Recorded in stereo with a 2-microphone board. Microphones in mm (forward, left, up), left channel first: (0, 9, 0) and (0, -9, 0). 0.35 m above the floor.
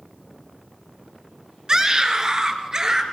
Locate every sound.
1.7 s a scream: 35° right (ahead or behind), 3.5 m